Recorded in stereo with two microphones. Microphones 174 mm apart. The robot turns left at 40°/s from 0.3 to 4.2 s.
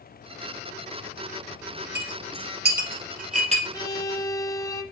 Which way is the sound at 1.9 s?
70° right (ahead or behind).